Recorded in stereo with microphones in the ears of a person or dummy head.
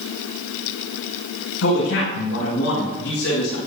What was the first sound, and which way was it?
A man speaking, 75° left (ahead or behind).